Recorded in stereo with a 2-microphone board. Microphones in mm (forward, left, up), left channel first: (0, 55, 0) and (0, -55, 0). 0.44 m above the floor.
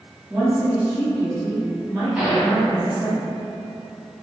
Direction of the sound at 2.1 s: 15° right (ahead or behind).